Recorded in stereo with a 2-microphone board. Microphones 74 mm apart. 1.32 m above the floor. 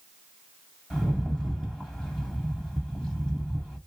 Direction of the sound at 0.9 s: 10° left (ahead or behind).